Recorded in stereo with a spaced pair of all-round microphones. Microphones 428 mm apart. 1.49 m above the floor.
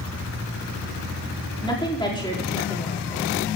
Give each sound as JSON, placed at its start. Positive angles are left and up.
{"t": 1.6, "sound": "a woman speaking", "side_deg": 10, "distance_m": 4.0}